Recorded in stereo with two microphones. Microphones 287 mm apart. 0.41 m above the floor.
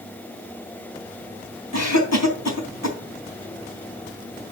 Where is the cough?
70° left (ahead or behind), 3 m.